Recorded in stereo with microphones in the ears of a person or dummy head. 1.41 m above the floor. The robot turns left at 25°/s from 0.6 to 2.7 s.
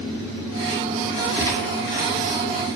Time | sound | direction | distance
1.4 | a gunshot | 15° left (ahead or behind) | 4 m